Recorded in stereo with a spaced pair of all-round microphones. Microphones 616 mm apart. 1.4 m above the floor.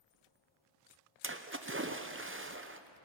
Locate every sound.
1.2 s a splash: 20° right (ahead or behind), 0.8 m